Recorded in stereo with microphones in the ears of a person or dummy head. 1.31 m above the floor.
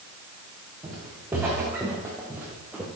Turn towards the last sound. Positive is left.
turn(degrees=-10)  # may be behind; listen again after turning